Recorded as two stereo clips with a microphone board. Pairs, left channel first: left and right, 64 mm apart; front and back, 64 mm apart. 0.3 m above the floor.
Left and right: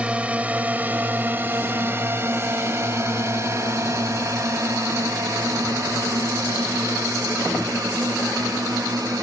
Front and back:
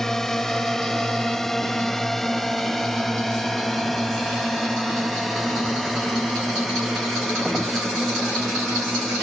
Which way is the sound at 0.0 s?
70° right.